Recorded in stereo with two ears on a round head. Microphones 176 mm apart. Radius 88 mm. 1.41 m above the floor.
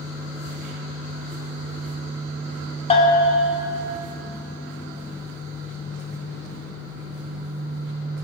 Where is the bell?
30° left (ahead or behind), 1.2 m.